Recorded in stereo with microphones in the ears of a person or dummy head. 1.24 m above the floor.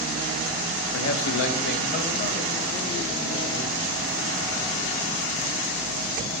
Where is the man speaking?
80° left, 0.8 m; by 3.7 s 20° left (ahead or behind), 1.7 m.